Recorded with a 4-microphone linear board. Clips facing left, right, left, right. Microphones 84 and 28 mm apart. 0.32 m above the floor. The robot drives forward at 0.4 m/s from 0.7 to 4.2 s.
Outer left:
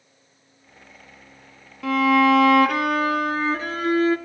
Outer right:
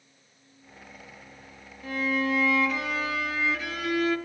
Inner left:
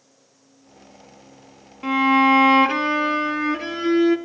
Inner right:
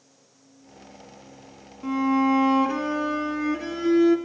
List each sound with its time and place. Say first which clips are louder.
1.8 s a violin: outer left 11 dB, inner left 6 dB; 80° left, 0.5 m; by 4.2 s 30° left (ahead or behind), 1.0 m